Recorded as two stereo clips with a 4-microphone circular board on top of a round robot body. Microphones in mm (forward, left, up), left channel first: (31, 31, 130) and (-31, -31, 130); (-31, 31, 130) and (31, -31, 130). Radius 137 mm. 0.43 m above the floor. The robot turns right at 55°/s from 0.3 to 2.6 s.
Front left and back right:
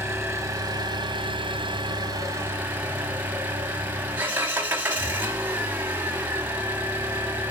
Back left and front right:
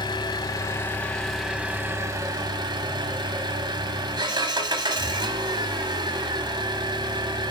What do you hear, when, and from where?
0.0 s an engine running: 165° left, 1.0 m; by 7.5 s 65° right, 1.0 m